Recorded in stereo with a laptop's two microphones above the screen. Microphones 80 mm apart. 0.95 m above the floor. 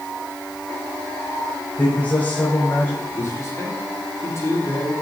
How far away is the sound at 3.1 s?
About 3 m.